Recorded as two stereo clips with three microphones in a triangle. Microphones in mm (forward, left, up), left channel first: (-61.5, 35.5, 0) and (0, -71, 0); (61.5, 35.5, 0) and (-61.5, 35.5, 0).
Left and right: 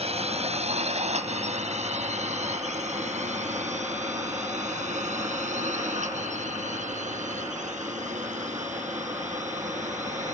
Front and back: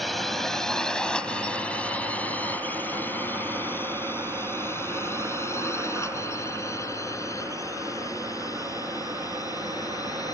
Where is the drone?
90° right; by 10.3 s 60° right.